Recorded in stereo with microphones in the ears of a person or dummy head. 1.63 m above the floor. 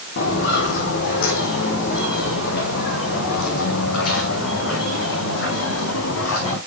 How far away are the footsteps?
About 4 m.